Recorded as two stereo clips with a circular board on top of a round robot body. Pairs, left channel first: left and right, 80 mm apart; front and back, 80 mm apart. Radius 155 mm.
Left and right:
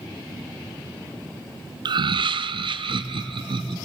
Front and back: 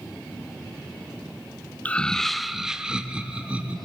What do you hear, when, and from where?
1.9 s laughter: 70° right, 0.6 m; by 3.8 s 105° right, 1.7 m